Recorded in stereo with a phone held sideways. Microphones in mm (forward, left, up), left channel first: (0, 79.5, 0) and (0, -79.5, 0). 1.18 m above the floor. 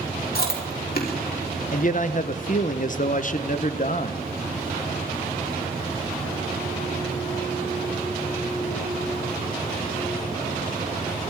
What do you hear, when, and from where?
0.3 s chewing: 70° left (ahead or behind), 3.5 m
1.7 s a man speaking: 55° left (ahead or behind), 0.8 m